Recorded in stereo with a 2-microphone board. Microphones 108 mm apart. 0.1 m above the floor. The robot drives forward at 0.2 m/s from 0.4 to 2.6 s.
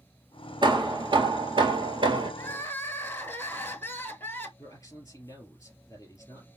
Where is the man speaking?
25° left (ahead or behind), 2.5 m.